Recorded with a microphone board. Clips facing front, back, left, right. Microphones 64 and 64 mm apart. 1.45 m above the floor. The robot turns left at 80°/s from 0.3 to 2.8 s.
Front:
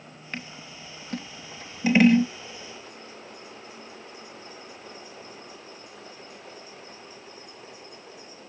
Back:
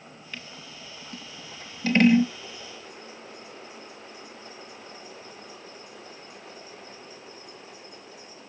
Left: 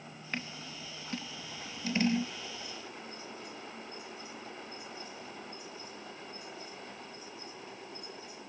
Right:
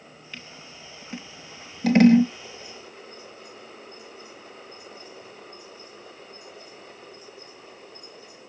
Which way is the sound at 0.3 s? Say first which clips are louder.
Front 4 dB, left 4 dB; 50° left.